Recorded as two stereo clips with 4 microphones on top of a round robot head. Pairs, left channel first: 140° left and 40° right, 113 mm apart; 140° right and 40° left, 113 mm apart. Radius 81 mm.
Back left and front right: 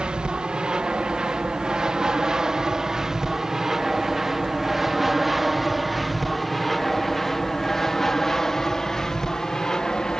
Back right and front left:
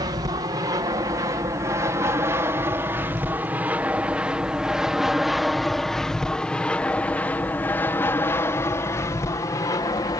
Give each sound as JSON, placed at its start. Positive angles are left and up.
{"t": 0.0, "sound": "an aircraft", "azimuth_deg": 35}